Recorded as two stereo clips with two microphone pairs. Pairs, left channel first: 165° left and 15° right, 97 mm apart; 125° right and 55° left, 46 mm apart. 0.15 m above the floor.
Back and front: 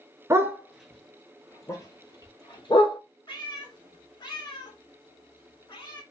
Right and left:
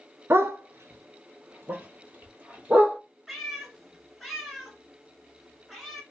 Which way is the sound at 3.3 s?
145° left.